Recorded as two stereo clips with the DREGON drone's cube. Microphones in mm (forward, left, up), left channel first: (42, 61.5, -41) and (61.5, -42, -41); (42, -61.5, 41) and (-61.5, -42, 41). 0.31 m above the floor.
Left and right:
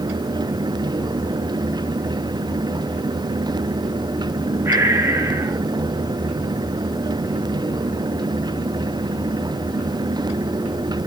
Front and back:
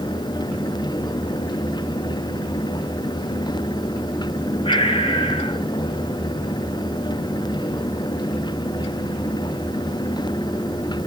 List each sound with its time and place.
4.7 s breathing: 15° right, 1.9 m